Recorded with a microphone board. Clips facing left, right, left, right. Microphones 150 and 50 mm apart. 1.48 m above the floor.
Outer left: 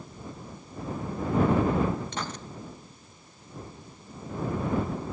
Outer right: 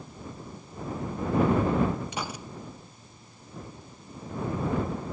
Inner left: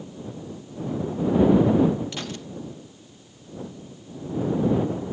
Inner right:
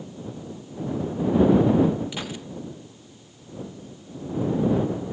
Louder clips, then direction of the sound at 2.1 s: Even, even; 10° right (ahead or behind).